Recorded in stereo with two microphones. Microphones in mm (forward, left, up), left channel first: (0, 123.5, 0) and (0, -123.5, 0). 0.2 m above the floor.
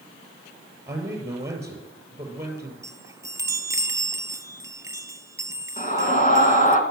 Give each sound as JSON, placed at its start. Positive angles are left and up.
{"t": 0.9, "sound": "a man speaking", "side_deg": -10, "distance_m": 5.0}
{"t": 2.8, "sound": "a chime", "side_deg": -10, "distance_m": 0.8}
{"t": 5.8, "sound": "a scream", "side_deg": 30, "distance_m": 2.5}